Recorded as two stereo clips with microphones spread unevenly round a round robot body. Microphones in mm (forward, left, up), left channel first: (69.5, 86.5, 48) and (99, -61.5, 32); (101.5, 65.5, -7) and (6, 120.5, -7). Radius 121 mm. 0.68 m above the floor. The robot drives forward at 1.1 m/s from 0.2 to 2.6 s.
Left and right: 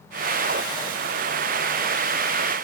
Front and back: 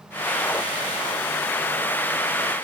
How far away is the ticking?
I don't hear ticking.